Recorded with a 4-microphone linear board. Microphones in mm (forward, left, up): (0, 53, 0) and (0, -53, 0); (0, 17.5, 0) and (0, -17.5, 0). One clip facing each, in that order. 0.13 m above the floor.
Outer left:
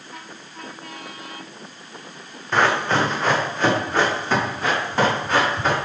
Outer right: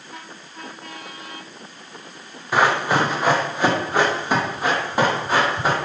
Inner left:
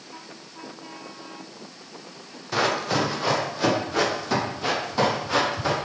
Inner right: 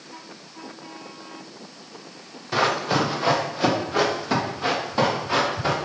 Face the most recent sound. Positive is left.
turn(degrees=-15)  # may be behind; listen again after turning